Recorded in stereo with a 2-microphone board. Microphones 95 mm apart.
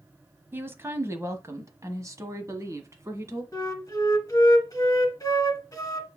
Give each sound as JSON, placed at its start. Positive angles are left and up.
{"t": 0.5, "sound": "a woman speaking", "side_deg": -25, "distance_m": 1.2}
{"t": 3.5, "sound": "a flute", "side_deg": 35, "distance_m": 1.5}